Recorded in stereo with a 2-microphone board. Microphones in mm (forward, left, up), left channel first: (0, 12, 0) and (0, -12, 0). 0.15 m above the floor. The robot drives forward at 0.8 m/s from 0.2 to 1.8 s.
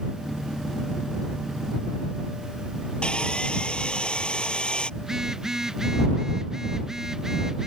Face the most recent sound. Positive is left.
turn(degrees=-20)  # may be behind; listen again after turning